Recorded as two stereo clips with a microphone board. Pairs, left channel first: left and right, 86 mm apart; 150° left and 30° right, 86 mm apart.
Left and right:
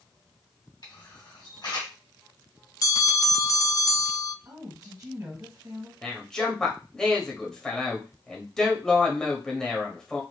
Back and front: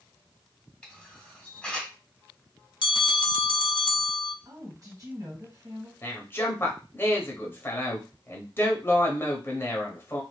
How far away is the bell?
About 0.5 m.